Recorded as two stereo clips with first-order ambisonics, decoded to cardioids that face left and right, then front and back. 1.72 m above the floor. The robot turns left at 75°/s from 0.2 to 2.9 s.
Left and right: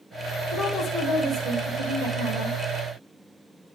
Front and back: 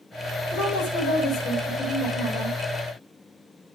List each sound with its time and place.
0.5 s a woman speaking: 30° left, 8 m; by 2.6 s 125° right, 8 m